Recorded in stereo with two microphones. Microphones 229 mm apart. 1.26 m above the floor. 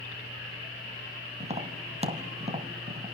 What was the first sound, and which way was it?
Tapping, 30° right (ahead or behind).